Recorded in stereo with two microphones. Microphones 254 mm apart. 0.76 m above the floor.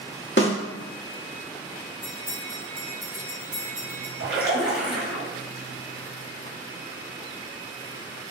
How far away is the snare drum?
About 1.3 m.